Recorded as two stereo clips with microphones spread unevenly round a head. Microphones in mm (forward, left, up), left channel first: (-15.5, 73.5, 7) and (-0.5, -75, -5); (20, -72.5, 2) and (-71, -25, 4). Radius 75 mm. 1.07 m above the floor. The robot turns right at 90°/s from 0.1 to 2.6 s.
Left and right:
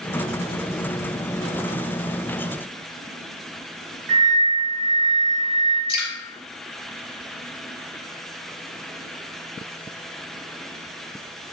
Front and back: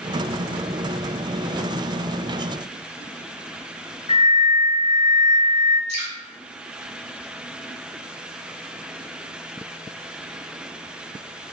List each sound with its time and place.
4.1 s a flute: 50° right, 1.0 m
5.9 s dripping: 120° left, 1.3 m